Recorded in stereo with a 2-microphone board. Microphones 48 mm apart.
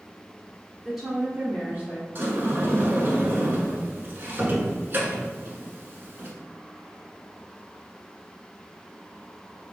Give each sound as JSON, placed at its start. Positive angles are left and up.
{"t": 0.8, "sound": "a woman speaking", "side_deg": 0, "distance_m": 1.0}
{"t": 2.1, "sound": "a sliding door", "side_deg": -50, "distance_m": 0.7}